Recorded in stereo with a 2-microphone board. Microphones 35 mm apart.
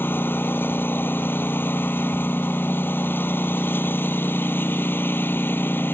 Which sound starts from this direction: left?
A lawn mower, at 0.0 s.